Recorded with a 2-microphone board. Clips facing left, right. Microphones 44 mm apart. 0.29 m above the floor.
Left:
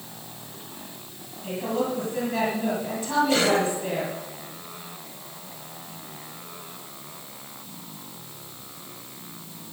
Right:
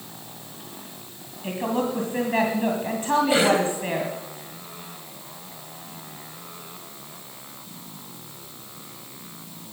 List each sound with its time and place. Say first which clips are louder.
1.4 s a woman speaking: right 1 dB; 40° right (ahead or behind), 2 m
3.3 s a cough: right 2 dB; 20° right (ahead or behind), 1.9 m